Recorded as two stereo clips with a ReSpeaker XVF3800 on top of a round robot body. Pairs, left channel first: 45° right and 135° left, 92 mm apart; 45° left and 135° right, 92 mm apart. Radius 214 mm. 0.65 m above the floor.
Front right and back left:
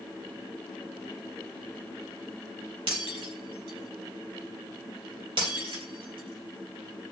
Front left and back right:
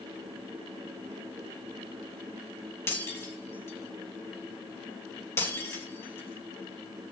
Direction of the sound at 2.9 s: 105° left.